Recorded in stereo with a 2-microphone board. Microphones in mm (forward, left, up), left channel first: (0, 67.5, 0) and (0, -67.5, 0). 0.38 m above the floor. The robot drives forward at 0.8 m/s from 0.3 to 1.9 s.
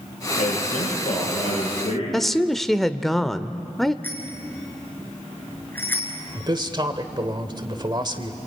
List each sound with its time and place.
0.4 s a man speaking: 65° left (ahead or behind), 10 m; by 2.0 s 60° left (ahead or behind), 10.5 m
2.1 s a woman speaking: centre (ahead or behind), 0.8 m
4.0 s a bicycle bell: 15° left (ahead or behind), 4 m
6.3 s a man speaking: 35° right (ahead or behind), 1.5 m